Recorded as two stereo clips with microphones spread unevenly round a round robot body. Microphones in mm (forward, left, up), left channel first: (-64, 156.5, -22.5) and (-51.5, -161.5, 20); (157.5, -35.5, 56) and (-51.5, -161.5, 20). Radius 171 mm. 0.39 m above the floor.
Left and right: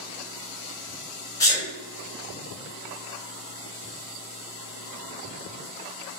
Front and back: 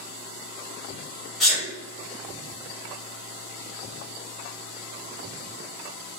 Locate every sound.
1.4 s a sneeze: 135° left, 1.4 m